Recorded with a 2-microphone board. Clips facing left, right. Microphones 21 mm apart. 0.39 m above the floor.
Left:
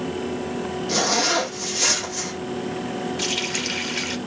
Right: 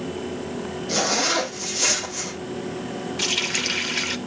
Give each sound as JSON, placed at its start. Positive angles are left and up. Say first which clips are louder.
{"t": 0.9, "sound": "a zipper", "louder": "left 1 dB", "side_deg": 10, "distance_m": 6.0}
{"t": 3.2, "sound": "a running tap", "louder": "right 4 dB", "side_deg": -5, "distance_m": 0.8}